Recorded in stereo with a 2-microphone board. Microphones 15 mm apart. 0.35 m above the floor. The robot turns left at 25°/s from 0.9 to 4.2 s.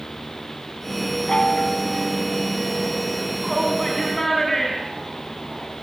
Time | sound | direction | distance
1.3 | a chime | 115° left | 2.5 m
3.4 | a shout | 10° left (ahead or behind) | 3.5 m